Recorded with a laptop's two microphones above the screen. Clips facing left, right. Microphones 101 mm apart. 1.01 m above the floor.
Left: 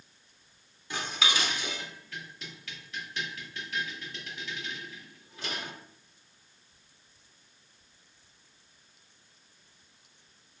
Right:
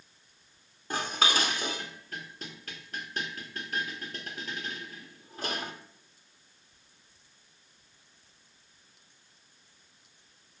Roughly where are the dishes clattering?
Right.